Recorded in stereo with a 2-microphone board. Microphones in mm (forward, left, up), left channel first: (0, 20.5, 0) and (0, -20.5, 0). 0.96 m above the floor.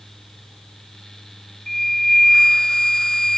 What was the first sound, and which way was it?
A flute, 10° left (ahead or behind).